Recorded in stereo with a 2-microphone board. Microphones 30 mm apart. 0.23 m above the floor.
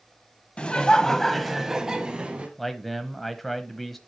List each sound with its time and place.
0.6 s laughter: 40° left (ahead or behind), 1.1 m; by 2.5 s 30° right (ahead or behind), 1.5 m
2.6 s a man speaking: 5° left (ahead or behind), 0.9 m